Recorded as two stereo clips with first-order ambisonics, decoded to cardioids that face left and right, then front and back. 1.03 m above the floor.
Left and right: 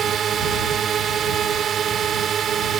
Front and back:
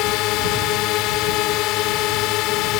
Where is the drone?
30° right.